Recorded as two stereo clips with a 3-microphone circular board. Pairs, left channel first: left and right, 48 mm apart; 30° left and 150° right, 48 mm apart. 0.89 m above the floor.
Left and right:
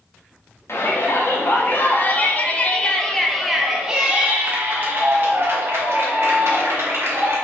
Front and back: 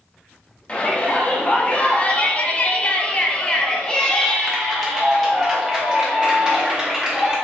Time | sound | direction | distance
0.7 | a shout | 90° left | 1.6 m